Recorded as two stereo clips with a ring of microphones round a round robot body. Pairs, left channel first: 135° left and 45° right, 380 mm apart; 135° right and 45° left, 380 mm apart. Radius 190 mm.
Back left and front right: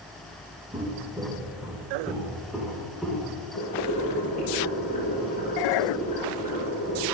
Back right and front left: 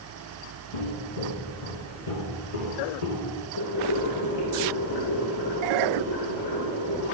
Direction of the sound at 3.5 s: 155° right.